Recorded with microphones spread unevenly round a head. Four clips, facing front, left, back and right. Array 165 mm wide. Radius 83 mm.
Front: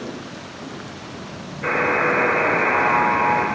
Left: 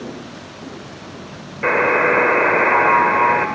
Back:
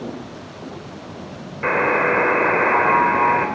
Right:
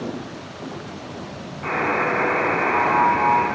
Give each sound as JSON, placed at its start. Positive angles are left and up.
{"t": 1.6, "sound": "a buzzer", "azimuth_deg": 100, "distance_m": 1.4}